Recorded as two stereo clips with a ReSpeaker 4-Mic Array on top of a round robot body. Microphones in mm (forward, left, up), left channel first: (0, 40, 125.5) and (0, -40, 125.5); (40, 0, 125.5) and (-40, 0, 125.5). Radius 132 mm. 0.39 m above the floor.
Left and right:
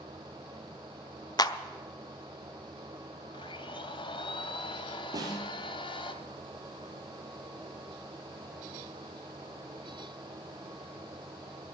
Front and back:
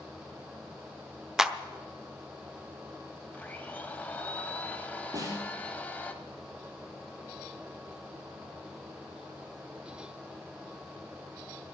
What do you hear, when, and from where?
1.4 s a clap: 95° left, 1.0 m
3.3 s a blender: 70° left, 1.0 m
5.1 s a snare drum: 135° right, 4 m